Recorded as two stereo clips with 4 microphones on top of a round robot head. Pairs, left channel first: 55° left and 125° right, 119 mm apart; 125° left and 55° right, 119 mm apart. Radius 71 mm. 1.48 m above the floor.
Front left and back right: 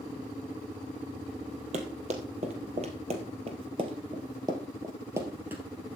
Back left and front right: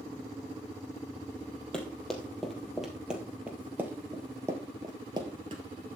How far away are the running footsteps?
About 2.5 m.